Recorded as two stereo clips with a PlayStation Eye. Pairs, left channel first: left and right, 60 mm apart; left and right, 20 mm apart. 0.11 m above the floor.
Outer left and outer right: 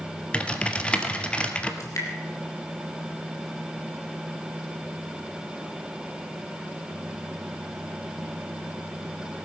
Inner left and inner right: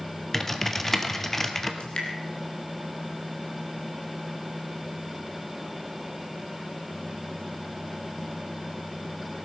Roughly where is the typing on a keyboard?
Centre.